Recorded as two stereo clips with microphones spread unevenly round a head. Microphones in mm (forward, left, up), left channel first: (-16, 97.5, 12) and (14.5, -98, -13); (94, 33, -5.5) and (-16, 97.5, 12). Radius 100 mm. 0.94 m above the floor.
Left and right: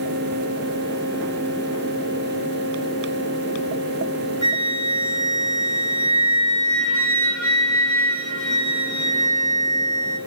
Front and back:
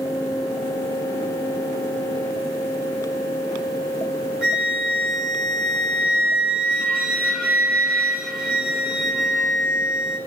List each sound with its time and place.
4.4 s a flute: 65° left, 8.5 m